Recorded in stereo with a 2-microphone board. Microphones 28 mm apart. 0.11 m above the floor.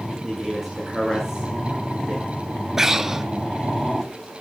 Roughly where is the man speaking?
Centre.